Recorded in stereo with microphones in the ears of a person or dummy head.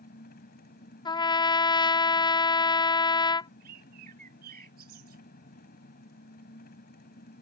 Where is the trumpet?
25° left (ahead or behind).